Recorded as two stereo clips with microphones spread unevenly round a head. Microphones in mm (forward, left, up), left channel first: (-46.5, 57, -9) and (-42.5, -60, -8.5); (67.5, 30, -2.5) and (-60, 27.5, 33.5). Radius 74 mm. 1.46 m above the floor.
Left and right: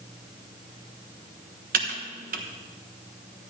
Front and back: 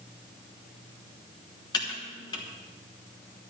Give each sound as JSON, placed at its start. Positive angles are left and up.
{"t": 1.7, "sound": "typing on a keyboard", "azimuth_deg": -65, "distance_m": 1.3}